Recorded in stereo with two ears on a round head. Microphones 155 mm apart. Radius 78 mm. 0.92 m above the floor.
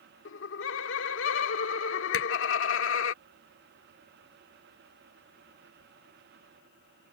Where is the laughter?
80° left.